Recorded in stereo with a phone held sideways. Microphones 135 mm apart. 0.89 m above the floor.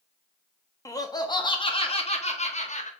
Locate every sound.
0.8 s laughter: 25° left (ahead or behind), 1.4 m; by 2.9 s 65° left (ahead or behind), 1.6 m